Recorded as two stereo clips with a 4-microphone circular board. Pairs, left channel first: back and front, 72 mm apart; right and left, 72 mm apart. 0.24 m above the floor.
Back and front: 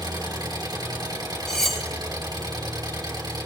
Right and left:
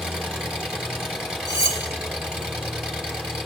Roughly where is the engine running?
Ahead.